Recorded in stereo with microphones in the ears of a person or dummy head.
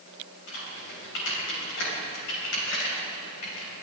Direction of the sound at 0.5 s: 75° left (ahead or behind).